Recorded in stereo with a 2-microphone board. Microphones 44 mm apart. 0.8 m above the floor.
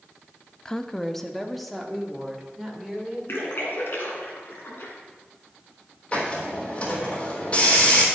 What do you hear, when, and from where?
0.7 s a woman speaking: 20° left (ahead or behind), 0.6 m; by 3.2 s centre (ahead or behind), 3 m
3.3 s a splash: 60° left (ahead or behind), 3 m
6.1 s a hiss: 30° left (ahead or behind), 3.5 m